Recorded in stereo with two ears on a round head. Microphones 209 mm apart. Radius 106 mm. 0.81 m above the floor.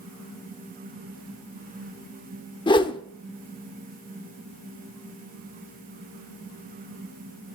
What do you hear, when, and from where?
2.7 s a whoosh: 20° left (ahead or behind), 0.9 m